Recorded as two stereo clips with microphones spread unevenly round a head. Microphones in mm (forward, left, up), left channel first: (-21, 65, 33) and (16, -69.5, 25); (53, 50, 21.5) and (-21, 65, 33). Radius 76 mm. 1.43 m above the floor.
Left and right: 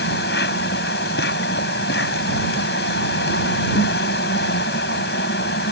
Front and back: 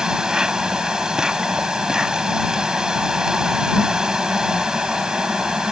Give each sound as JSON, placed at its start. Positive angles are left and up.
{"t": 0.0, "sound": "an insect", "azimuth_deg": 90}